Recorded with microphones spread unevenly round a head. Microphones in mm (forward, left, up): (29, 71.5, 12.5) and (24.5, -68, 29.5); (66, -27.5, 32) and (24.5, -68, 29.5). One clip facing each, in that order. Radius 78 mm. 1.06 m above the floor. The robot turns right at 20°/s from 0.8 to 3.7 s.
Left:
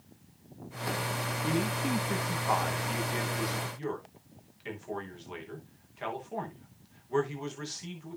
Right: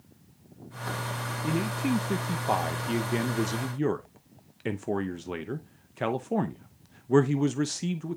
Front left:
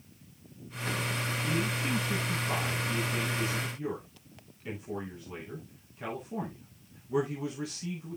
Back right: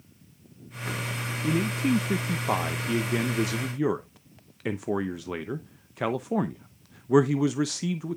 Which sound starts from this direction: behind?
A man speaking, at 1.4 s.